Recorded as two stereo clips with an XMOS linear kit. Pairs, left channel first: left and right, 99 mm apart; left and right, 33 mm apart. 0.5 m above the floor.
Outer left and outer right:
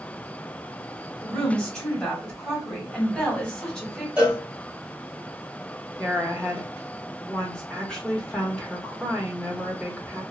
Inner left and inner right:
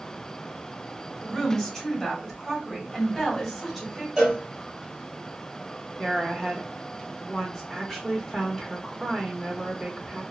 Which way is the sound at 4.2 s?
10° right (ahead or behind).